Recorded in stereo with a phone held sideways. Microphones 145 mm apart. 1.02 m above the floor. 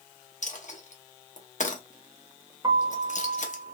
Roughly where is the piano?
Right.